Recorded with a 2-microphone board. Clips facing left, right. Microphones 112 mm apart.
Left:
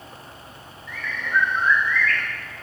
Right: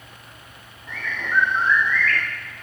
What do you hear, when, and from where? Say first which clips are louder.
0.9 s a bird: even; 50° right (ahead or behind), 4.5 m